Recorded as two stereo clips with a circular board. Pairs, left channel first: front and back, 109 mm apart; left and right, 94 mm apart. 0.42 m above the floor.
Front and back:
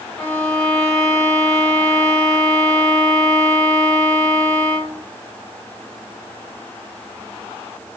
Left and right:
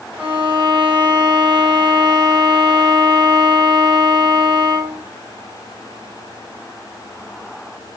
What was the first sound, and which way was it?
A violin, 60° right.